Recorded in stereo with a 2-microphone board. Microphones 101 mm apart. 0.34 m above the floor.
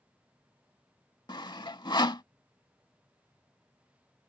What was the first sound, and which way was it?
Sawing, 50° left (ahead or behind).